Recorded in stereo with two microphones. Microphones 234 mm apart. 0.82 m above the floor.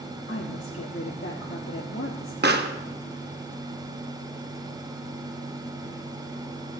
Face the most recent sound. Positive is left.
turn(degrees=-45)  # may be behind; listen again after turning